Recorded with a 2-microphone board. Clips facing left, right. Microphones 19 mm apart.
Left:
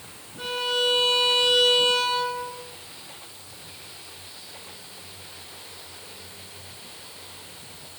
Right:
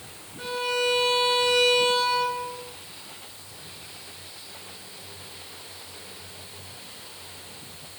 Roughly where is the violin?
Centre.